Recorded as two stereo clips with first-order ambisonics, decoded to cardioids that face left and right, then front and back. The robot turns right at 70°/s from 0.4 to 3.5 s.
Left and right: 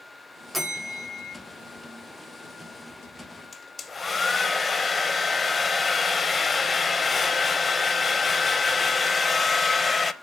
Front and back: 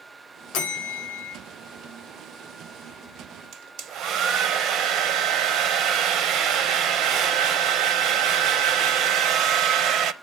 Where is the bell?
10° right, 2 m; by 1.4 s 50° left, 2 m.